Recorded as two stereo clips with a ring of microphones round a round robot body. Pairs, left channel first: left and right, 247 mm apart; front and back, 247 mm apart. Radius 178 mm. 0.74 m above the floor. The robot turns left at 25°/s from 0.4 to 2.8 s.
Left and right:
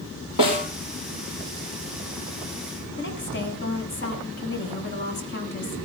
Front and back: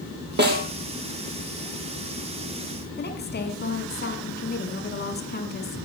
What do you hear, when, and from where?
0.4 s a snare drum: 135° left, 6 m; by 0.7 s 130° left, 6 m
3.0 s a woman speaking: 50° left, 7.5 m